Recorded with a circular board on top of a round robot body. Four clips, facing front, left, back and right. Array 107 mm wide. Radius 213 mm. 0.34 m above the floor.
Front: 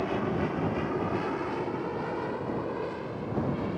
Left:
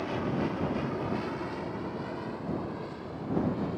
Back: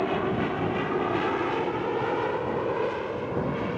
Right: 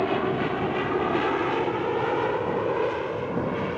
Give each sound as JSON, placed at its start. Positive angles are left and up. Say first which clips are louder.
{"t": 0.0, "sound": "an aircraft", "louder": "right 7 dB, back 3 dB", "azimuth_deg": -115}